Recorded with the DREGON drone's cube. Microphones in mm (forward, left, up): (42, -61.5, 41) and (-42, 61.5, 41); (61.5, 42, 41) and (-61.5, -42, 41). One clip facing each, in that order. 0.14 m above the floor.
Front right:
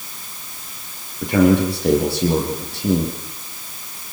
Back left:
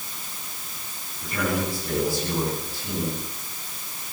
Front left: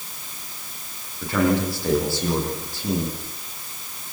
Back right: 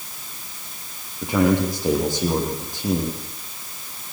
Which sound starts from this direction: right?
A man speaking, at 1.2 s.